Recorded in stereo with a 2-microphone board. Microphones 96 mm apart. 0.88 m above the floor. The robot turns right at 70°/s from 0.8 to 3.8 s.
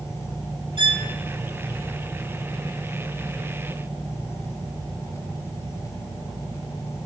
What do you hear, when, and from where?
0.8 s a violin: 65° right (ahead or behind), 0.8 m; by 1.0 s 60° right (ahead or behind), 0.8 m